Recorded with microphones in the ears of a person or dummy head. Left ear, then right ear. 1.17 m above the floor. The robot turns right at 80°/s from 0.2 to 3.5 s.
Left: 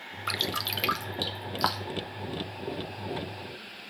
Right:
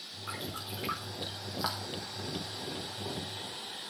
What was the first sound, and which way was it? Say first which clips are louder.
Dripping: left 11 dB; 45° left (ahead or behind).